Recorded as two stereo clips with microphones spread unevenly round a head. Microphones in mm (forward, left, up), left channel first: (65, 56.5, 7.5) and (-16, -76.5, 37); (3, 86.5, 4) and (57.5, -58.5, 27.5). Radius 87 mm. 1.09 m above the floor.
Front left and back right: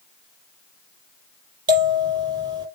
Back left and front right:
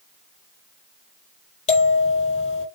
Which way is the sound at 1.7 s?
170° left.